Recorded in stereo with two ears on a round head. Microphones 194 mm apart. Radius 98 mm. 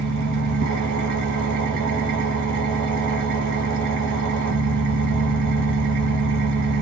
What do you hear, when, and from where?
0.0 s an engine running: 55° right (ahead or behind), 0.9 m